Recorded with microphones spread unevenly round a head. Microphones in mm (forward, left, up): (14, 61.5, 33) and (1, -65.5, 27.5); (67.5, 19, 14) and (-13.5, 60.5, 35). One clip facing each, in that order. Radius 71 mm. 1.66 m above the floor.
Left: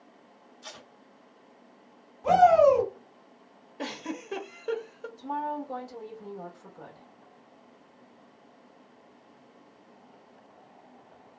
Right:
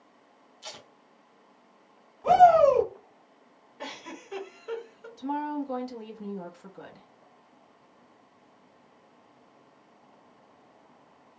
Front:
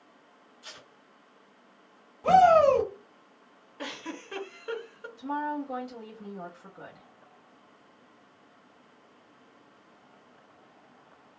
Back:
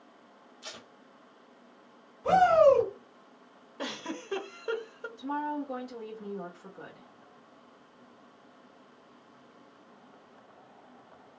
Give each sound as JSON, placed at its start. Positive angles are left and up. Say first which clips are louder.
{"t": 0.6, "sound": "tape being pulled", "louder": "right 2 dB, back 3 dB", "azimuth_deg": -165, "distance_m": 0.6}
{"t": 2.2, "sound": "a shout", "louder": "right 1 dB, front 2 dB", "azimuth_deg": -5, "distance_m": 1.5}
{"t": 3.8, "sound": "a giggle", "louder": "left 5 dB, back 1 dB", "azimuth_deg": 105, "distance_m": 0.6}
{"t": 5.2, "sound": "a woman speaking", "louder": "right 2 dB, front 1 dB", "azimuth_deg": -115, "distance_m": 1.0}